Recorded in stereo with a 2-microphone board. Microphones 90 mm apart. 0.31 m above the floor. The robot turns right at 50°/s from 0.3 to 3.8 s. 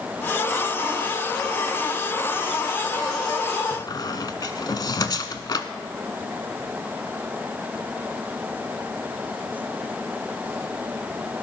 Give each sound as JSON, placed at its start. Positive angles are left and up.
{"t": 3.7, "sound": "a squeak", "side_deg": 45, "distance_m": 0.9}